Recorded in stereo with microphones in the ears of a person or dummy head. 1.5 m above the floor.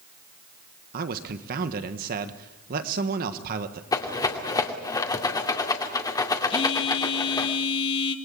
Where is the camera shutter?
No camera shutter in this recording.